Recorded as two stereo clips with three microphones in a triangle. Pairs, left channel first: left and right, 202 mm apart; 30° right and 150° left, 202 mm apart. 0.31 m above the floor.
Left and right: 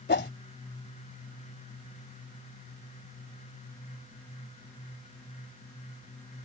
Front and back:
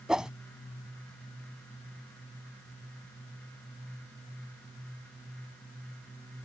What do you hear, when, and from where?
0.1 s a whoosh: 65° left